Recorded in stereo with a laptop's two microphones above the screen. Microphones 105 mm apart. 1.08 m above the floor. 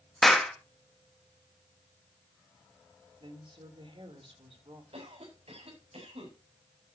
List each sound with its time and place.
0.2 s a clap: 5° left (ahead or behind), 1.4 m
3.2 s a woman speaking: 60° right (ahead or behind), 3.5 m
4.9 s a cough: 75° right (ahead or behind), 8 m